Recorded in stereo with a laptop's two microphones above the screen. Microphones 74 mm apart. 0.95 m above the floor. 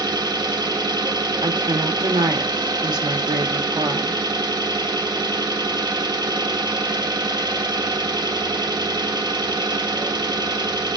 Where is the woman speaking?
75° right (ahead or behind), 1.5 m.